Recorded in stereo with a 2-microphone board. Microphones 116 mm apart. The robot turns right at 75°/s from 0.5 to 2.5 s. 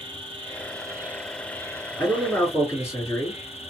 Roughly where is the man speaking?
Centre.